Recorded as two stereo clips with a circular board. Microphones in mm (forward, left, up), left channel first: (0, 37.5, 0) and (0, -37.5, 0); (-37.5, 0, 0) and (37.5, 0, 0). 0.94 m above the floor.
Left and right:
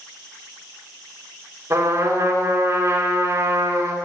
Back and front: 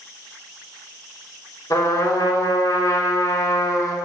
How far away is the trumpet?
About 3 m.